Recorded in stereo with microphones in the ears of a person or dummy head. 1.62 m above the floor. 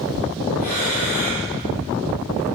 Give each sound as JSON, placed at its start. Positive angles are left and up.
{"t": 0.6, "sound": "breathing", "side_deg": 50, "distance_m": 5.5}